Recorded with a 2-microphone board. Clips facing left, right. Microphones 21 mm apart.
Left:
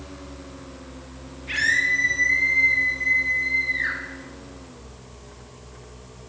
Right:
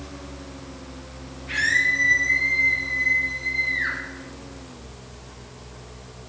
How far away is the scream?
About 4 m.